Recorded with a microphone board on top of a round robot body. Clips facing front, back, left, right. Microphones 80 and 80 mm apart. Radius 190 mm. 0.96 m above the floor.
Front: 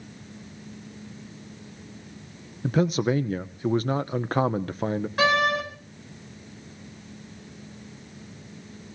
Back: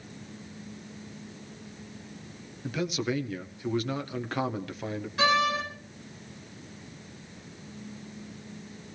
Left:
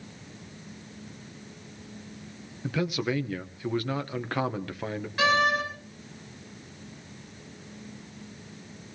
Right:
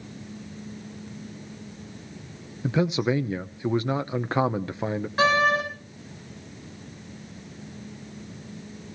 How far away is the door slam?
About 7 m.